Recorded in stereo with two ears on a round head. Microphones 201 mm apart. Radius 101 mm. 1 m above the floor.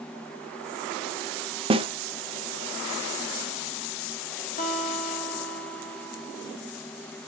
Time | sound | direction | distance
1.7 | a snare drum | 25° right (ahead or behind) | 0.6 m
4.6 | a guitar | 35° left (ahead or behind) | 1.5 m